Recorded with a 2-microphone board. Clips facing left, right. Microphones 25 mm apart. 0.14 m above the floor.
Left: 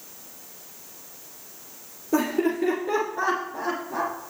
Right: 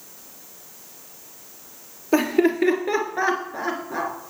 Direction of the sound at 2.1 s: 60° right (ahead or behind).